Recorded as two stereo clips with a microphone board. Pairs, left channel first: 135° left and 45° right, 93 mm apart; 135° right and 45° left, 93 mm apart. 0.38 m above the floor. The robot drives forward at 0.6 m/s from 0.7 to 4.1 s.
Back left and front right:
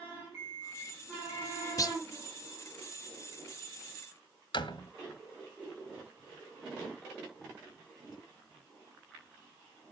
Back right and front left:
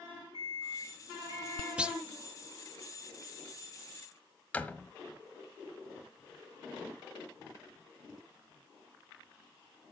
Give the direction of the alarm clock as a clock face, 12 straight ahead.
11 o'clock.